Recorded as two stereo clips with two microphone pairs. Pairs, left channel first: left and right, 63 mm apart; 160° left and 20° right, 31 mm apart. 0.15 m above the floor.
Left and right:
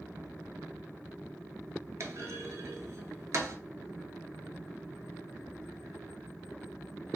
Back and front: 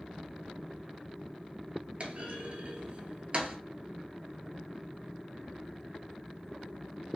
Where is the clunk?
60° right, 0.6 m.